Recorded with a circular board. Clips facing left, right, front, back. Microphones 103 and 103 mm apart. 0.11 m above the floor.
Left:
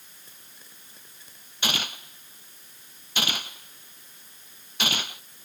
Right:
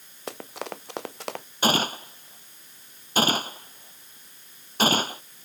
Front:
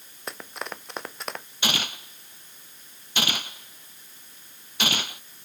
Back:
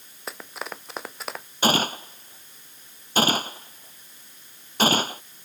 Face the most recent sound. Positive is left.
turn(degrees=-135)